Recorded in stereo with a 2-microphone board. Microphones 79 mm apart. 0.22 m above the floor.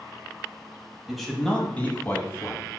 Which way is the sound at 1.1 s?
5° right (ahead or behind).